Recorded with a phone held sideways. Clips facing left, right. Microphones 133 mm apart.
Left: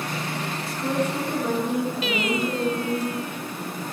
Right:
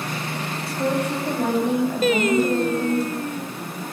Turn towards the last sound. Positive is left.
turn(degrees=-45)  # may be behind; listen again after turning